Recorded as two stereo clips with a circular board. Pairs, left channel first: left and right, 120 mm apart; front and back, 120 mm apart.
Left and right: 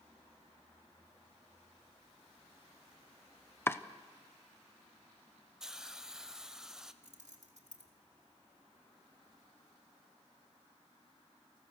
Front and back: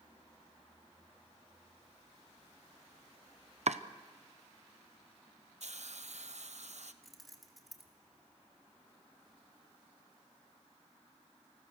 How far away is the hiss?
About 1.0 m.